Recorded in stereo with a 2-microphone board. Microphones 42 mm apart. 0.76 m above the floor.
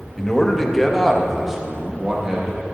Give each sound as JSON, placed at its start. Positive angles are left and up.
{"t": 0.2, "sound": "a man speaking", "side_deg": 10, "distance_m": 1.2}